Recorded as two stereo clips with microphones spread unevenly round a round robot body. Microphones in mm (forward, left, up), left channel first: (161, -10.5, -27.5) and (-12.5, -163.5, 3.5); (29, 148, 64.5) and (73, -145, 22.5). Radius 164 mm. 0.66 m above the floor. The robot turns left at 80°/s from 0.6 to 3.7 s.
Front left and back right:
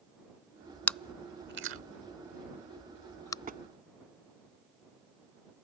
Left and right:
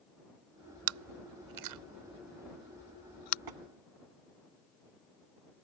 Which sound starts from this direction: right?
Tapping, at 3.5 s.